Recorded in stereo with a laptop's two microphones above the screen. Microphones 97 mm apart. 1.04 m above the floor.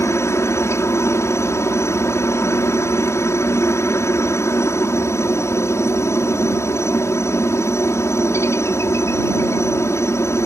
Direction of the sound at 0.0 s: 30° left (ahead or behind).